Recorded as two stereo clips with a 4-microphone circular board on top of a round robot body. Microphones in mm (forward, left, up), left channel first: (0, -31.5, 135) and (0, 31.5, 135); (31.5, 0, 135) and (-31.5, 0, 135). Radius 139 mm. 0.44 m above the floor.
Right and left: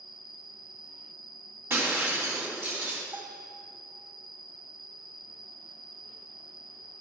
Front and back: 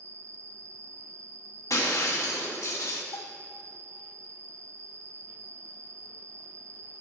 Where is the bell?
30° left, 0.7 m.